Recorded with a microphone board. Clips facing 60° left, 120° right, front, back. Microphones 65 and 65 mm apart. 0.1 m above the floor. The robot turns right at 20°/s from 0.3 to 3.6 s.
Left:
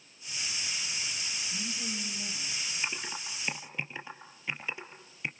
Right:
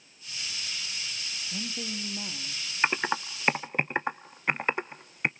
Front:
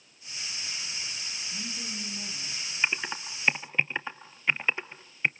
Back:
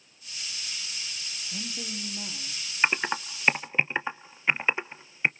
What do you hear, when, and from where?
1.5 s a woman speaking: 125° right, 4.5 m; by 2.6 s 100° right, 4.5 m
2.8 s typing on a keyboard: 125° right, 0.9 m; by 5.3 s 110° right, 0.9 m